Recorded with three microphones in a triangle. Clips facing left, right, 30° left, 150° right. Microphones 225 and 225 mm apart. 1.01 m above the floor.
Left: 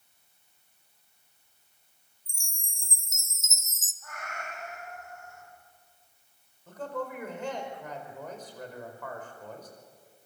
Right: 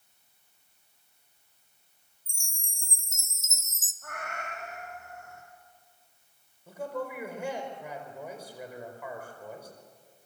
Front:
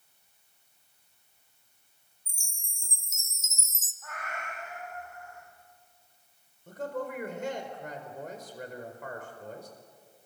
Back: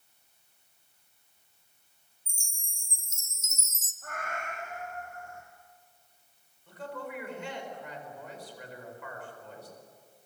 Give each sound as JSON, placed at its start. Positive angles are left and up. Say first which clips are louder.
{"t": 2.3, "sound": "a chime", "louder": "even, back 1 dB", "azimuth_deg": 155, "distance_m": 1.2}
{"t": 4.0, "sound": "a cat meowing", "louder": "right 2 dB, back 3 dB", "azimuth_deg": -110, "distance_m": 4.5}
{"t": 6.7, "sound": "a man speaking", "louder": "right 1 dB, front 5 dB", "azimuth_deg": -10, "distance_m": 4.5}